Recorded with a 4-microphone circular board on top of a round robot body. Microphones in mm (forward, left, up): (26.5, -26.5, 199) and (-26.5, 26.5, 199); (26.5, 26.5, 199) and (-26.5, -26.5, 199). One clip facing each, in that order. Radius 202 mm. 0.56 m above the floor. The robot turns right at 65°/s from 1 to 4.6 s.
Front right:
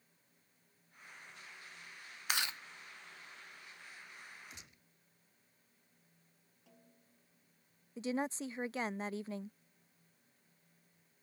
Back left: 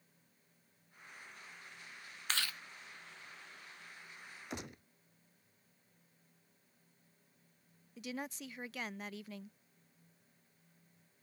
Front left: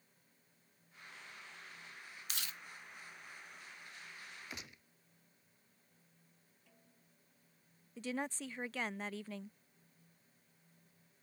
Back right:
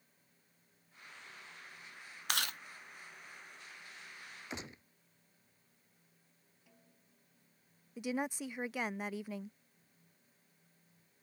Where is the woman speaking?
65° right.